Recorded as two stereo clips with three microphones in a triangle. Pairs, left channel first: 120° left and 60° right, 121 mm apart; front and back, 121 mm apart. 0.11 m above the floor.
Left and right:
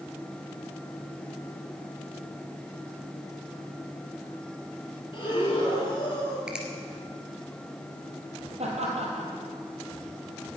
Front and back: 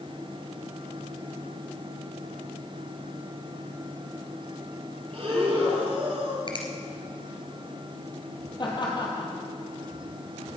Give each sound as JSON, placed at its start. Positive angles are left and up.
{"t": 5.1, "sound": "breathing", "azimuth_deg": 155, "distance_m": 2.5}
{"t": 6.5, "sound": "a finger snap", "azimuth_deg": 20, "distance_m": 2.0}
{"t": 8.6, "sound": "laughter", "azimuth_deg": -45, "distance_m": 3.0}